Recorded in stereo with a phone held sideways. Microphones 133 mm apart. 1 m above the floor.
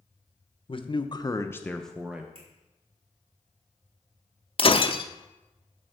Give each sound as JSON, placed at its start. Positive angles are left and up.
{"t": 0.7, "sound": "a man speaking", "side_deg": 40, "distance_m": 0.8}
{"t": 2.4, "sound": "a finger snap", "side_deg": -50, "distance_m": 3.0}
{"t": 4.6, "sound": "breaking glass", "side_deg": 45, "distance_m": 0.6}